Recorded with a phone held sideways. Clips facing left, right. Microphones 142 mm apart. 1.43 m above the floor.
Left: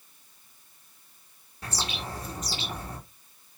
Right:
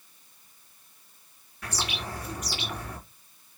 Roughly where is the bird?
Left.